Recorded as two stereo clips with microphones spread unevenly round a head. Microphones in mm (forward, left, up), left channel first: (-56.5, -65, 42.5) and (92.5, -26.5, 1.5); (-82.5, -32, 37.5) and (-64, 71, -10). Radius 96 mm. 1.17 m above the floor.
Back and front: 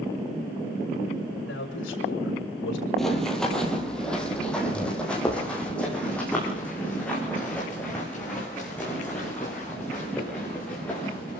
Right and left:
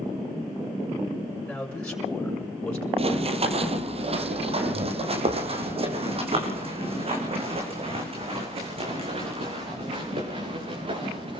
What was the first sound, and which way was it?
A man speaking, 175° left.